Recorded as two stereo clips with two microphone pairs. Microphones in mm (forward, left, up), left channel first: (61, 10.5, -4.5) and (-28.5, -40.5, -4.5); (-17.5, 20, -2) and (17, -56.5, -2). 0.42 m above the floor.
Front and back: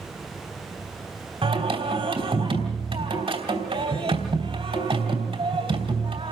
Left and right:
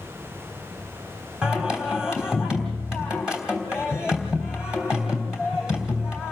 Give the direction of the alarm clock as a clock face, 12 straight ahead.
No alarm clock in this recording.